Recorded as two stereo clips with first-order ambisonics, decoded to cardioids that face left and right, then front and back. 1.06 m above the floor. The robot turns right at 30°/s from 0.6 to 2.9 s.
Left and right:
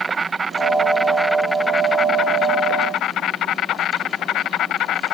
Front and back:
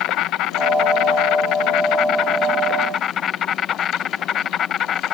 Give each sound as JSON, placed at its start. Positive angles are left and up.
{"t": 0.0, "sound": "an insect", "azimuth_deg": -20}